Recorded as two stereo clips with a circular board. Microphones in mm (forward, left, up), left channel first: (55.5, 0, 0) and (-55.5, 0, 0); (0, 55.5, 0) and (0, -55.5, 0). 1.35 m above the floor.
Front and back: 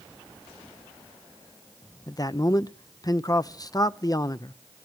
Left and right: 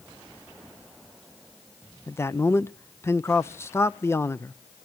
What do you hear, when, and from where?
2.1 s a man speaking: 35° left, 0.5 m